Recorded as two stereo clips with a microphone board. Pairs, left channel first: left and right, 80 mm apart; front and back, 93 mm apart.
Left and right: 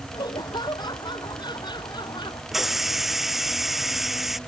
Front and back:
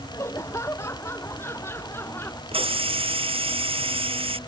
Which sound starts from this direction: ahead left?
Laughter, at 0.1 s.